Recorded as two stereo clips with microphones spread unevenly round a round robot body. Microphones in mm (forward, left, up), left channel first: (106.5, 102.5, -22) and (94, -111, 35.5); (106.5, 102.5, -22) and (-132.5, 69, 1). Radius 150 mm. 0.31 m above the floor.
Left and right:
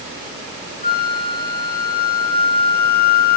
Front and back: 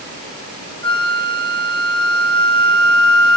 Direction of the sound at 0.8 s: 165° right.